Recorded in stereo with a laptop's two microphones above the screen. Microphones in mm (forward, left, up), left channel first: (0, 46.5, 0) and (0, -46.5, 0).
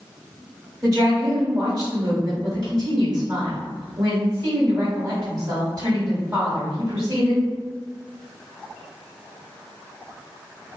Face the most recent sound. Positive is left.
turn(degrees=-40)  # may be behind; listen again after turning